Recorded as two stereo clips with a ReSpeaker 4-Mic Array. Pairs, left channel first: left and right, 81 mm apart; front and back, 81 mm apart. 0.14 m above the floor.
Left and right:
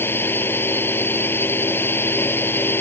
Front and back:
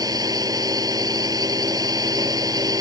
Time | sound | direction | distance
0.0 | a drone | 150° left | ?